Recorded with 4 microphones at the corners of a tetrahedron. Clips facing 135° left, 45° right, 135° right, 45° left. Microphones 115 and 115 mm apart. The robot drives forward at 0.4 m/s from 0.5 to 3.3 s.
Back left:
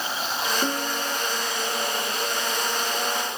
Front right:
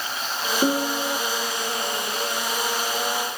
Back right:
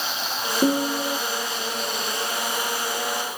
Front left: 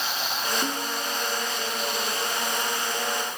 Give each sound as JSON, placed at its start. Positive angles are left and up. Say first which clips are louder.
{"t": 0.6, "sound": "a piano", "louder": "front right 5 dB, back right 9 dB", "azimuth_deg": -110}